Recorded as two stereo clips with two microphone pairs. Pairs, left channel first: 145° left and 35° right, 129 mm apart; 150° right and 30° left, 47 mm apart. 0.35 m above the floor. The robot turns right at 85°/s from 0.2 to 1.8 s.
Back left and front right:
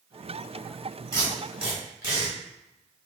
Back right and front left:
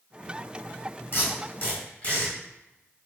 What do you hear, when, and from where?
1.1 s tape being pulled: 155° right, 1.7 m; by 2.4 s 100° right, 1.7 m